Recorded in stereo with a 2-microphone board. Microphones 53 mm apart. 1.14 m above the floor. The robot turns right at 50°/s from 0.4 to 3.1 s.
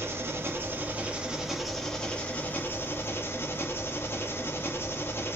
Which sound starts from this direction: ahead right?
An engine running, at 0.0 s.